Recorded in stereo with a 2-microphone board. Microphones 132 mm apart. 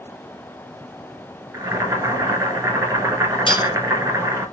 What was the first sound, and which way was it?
Boiling, 25° right (ahead or behind).